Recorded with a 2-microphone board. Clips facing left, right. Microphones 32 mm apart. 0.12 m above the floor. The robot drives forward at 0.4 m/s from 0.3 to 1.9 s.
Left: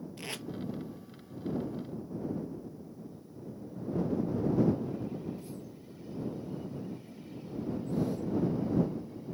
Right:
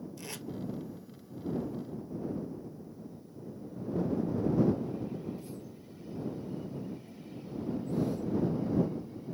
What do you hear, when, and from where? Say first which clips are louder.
0.2 s tape being pulled: left 3 dB; 40° left (ahead or behind), 0.7 m